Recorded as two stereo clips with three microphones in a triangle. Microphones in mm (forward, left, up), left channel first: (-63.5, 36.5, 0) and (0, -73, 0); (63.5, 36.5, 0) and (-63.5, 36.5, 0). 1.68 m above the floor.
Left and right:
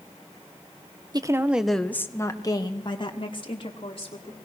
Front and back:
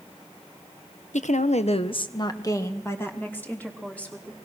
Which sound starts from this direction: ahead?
A woman speaking, at 1.1 s.